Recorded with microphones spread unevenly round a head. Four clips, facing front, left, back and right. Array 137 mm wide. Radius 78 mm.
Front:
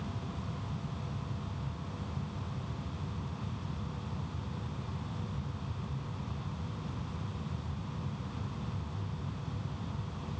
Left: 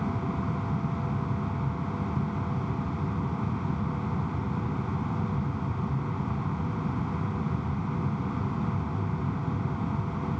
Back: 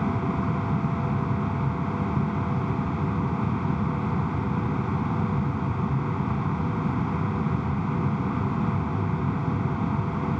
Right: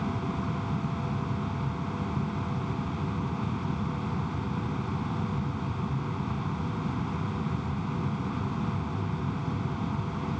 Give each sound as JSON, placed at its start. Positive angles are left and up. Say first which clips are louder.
{"t": 0.0, "sound": "a machine running", "louder": "left 1 dB, back 15 dB", "azimuth_deg": -175}